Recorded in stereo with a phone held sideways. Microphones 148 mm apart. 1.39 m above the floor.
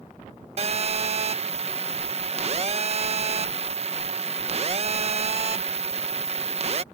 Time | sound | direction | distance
0.6 | a phone buzzing | 45° right (ahead or behind) | ?